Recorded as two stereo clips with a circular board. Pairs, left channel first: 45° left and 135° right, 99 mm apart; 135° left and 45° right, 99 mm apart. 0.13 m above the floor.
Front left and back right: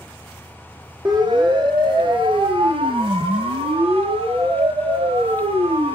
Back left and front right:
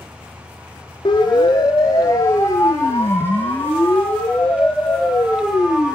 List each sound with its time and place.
1.1 s a siren: straight behind, 7 m; by 6.0 s 130° right, 7.5 m